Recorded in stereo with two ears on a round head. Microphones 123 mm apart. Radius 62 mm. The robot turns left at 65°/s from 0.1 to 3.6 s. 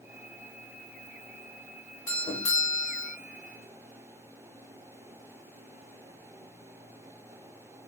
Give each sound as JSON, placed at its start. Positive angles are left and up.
{"t": 2.1, "sound": "a doorbell", "side_deg": 20, "distance_m": 1.2}